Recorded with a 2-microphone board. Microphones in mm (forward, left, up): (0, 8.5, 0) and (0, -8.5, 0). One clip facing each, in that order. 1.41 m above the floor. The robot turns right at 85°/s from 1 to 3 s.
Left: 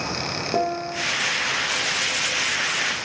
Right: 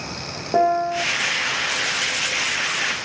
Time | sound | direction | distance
0.5 | a piano | 35° right (ahead or behind) | 1.7 m